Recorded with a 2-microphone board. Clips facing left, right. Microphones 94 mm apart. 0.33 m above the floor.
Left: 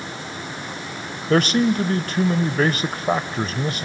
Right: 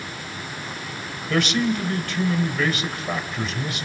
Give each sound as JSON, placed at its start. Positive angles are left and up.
{"t": 1.3, "sound": "a man speaking", "side_deg": 40, "distance_m": 1.1}